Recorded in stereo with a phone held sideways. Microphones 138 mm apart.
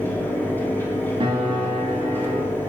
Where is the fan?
15° left (ahead or behind), 0.7 m.